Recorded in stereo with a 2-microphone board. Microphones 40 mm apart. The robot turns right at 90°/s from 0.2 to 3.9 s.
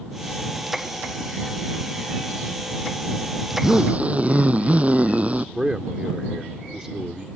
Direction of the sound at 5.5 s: 15° right (ahead or behind).